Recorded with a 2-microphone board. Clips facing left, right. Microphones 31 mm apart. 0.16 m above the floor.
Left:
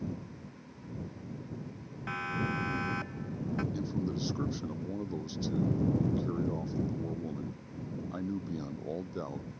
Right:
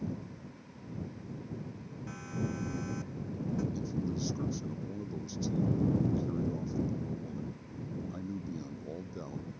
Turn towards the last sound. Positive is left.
turn(degrees=30)  # may be behind; listen again after turning